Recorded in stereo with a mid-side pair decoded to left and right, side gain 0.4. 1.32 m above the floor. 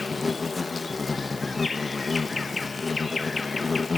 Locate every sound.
0.0 s an insect: 30° left, 0.9 m